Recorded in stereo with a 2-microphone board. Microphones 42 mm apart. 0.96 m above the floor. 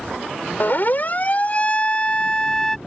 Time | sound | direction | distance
0.6 | a siren | 50° left (ahead or behind) | ?